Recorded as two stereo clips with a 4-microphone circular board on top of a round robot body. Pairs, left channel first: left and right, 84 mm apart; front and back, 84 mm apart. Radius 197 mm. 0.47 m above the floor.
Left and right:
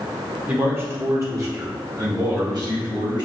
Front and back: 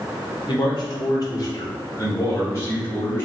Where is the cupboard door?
I don't hear a cupboard door.